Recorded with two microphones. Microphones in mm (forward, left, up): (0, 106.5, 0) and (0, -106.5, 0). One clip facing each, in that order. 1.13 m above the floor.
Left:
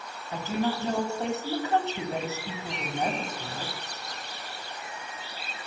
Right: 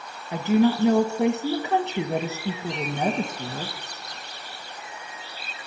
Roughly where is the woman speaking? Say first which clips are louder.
Right 9 dB; right.